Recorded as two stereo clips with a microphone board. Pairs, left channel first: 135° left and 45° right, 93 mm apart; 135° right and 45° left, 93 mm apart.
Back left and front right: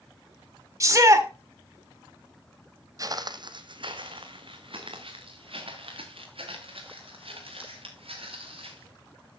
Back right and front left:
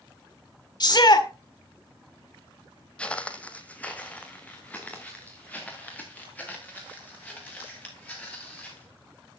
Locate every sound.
0.8 s a shout: 100° right, 1.7 m
3.0 s footsteps: 60° right, 0.8 m